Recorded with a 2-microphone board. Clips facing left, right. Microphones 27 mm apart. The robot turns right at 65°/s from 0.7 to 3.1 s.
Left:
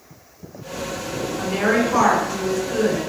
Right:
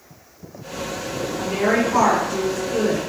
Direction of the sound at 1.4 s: 25° left.